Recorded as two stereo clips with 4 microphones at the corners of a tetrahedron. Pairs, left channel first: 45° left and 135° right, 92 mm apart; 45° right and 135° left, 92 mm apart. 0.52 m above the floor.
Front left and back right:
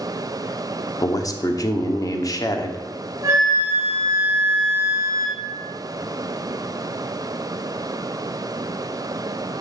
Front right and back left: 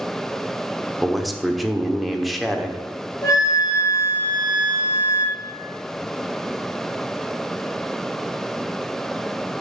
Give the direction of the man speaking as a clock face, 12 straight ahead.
10 o'clock.